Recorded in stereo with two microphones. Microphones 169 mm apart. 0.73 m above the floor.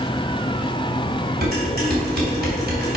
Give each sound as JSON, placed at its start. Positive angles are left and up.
{"t": 1.4, "sound": "dishes clattering", "side_deg": -75, "distance_m": 3.5}